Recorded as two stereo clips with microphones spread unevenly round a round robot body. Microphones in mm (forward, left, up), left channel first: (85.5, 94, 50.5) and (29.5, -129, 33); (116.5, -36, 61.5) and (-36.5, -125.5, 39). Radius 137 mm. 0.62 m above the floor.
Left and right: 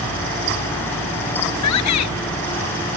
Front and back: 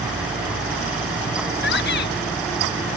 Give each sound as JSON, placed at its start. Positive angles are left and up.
{"t": 1.6, "sound": "a shout", "azimuth_deg": 80}